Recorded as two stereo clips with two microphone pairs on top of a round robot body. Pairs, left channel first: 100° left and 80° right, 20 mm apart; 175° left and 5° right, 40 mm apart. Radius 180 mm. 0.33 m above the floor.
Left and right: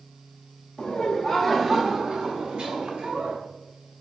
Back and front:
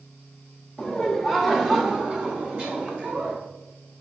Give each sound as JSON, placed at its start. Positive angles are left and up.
{"t": 0.8, "sound": "laughter", "azimuth_deg": 120, "distance_m": 1.1}